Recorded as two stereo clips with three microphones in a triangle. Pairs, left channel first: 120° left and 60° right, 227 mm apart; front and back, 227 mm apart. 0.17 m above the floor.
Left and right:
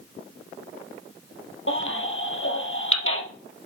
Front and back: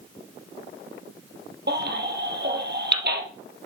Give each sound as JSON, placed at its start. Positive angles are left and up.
{"t": 1.7, "sound": "a baby crying", "azimuth_deg": 140, "distance_m": 1.7}